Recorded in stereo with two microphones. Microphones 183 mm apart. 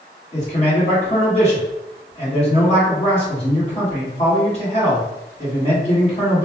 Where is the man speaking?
35° left (ahead or behind), 1.7 m.